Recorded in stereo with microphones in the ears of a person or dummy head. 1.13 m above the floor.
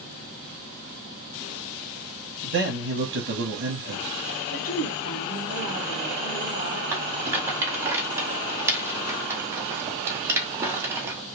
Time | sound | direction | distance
2.4 | a man speaking | 50° right (ahead or behind) | 0.8 m
4.5 | a woman speaking | 45° left (ahead or behind) | 1.7 m
6.9 | a rattle | 10° right (ahead or behind) | 0.8 m